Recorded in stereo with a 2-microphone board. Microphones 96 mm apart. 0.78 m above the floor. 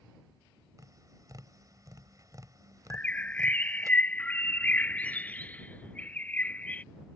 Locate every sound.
0.8 s tapping: 40° right (ahead or behind)
2.9 s a bird: 15° left (ahead or behind)